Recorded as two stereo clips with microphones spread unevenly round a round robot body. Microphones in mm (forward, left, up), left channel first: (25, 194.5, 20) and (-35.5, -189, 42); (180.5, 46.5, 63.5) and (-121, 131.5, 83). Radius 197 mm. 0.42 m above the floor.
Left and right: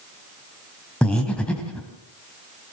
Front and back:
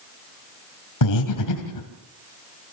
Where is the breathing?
5° right, 2.5 m.